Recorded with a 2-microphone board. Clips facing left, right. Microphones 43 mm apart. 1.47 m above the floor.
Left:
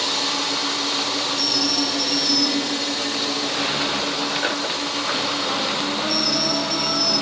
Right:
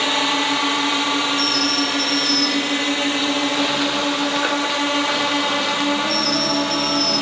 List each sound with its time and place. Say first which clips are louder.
0.0 s a drone: right 5 dB; 45° right (ahead or behind); by 7.2 s 55° right (ahead or behind)